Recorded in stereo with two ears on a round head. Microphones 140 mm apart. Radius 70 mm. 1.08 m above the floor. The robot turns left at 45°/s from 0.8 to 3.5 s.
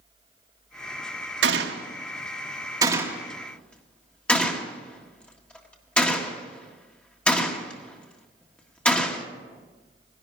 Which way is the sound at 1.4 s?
85° right.